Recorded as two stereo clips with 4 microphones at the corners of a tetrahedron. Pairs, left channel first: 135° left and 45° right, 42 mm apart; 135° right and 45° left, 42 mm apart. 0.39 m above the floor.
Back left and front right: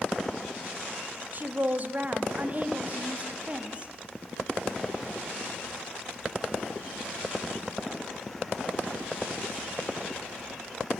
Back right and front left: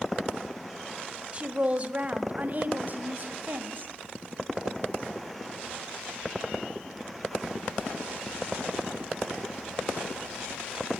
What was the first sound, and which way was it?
A woman speaking, 10° right.